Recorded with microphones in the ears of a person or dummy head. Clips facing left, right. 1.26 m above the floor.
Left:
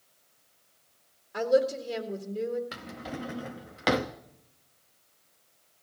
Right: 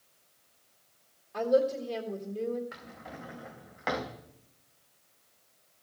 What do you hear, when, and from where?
1.3 s a woman speaking: 10° left (ahead or behind), 1.6 m
2.7 s a drawer: 40° left (ahead or behind), 0.8 m